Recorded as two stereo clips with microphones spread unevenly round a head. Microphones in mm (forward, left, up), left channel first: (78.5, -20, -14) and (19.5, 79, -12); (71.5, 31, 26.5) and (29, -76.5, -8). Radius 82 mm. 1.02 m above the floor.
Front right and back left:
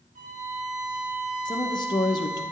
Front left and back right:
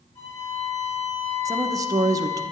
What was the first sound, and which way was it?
A violin, 130° left.